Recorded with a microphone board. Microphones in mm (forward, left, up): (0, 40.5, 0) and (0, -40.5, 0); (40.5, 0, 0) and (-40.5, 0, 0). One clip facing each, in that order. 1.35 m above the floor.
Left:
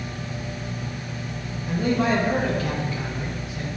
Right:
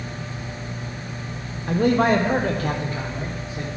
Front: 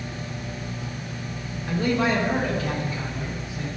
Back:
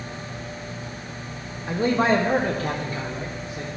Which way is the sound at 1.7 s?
110° right.